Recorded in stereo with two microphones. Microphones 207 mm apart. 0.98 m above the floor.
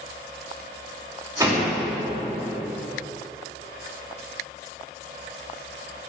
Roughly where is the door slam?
Centre.